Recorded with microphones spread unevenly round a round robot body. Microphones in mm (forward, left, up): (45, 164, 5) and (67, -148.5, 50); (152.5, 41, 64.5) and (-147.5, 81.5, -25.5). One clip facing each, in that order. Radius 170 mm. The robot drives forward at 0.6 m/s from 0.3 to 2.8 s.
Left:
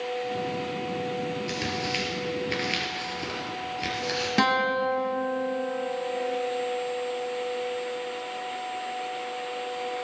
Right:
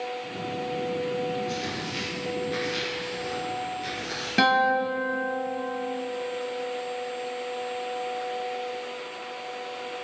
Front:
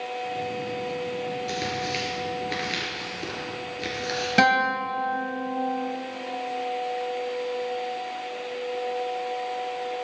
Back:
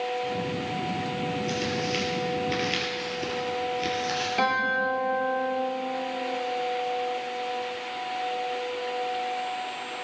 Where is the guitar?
10° left, 2 m.